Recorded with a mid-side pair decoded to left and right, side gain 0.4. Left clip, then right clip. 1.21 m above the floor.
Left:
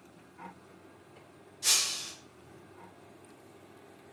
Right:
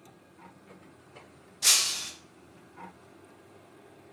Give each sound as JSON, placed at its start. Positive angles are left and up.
{"t": 1.6, "sound": "breaking glass", "azimuth_deg": -65, "distance_m": 1.0}